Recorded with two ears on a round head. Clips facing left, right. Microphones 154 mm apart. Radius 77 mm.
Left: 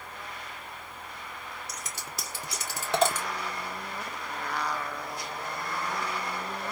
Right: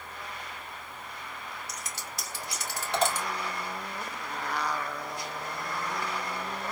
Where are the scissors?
75° left (ahead or behind), 1.6 m.